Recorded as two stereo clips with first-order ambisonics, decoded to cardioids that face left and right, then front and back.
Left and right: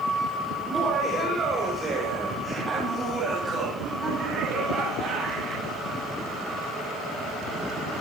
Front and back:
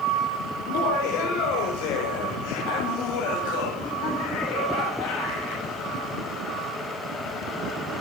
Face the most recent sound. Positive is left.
turn(degrees=-30)